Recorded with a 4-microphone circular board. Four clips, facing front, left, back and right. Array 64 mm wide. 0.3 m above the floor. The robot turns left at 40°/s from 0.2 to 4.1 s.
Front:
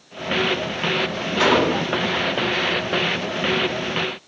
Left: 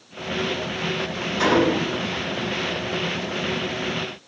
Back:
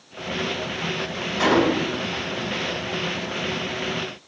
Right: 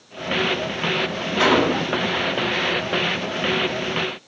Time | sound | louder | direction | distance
1.4 | a gunshot | right 1 dB, front 1 dB | 55° right | 1.8 m